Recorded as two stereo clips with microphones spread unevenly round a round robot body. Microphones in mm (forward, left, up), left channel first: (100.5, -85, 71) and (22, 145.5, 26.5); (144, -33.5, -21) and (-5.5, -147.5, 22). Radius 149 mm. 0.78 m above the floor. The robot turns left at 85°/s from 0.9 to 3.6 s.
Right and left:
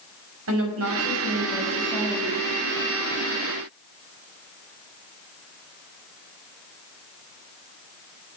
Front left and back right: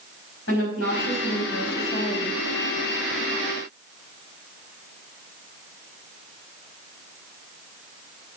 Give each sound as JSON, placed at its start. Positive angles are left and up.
{"t": 0.5, "sound": "a woman speaking", "azimuth_deg": 85, "distance_m": 5.0}